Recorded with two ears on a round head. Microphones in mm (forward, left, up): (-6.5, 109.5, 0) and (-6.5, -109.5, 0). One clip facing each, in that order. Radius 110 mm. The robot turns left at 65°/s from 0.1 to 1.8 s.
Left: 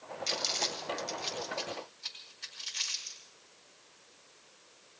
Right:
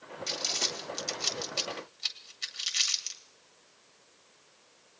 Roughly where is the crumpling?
Centre.